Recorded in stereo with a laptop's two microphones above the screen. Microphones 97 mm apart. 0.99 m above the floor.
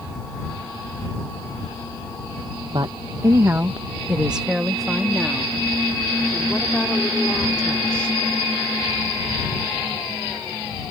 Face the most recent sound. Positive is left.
turn(degrees=10)  # may be behind; listen again after turning